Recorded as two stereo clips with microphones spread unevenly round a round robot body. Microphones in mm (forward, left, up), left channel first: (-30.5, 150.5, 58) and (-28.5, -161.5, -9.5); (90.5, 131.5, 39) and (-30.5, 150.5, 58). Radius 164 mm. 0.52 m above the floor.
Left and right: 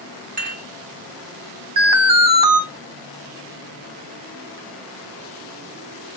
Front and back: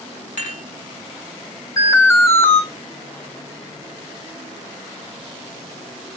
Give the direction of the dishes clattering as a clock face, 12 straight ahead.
1 o'clock.